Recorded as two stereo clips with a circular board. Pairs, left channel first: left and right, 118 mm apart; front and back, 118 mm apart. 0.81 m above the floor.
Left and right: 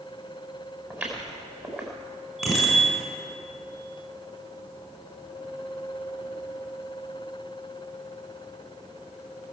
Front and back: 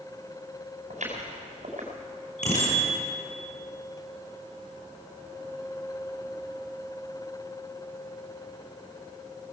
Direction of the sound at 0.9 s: 170° right.